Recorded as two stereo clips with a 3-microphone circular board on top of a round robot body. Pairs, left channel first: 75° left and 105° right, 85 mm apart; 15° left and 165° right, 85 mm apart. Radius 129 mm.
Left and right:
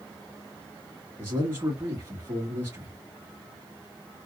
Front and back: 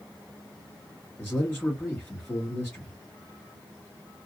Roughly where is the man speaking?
Ahead right.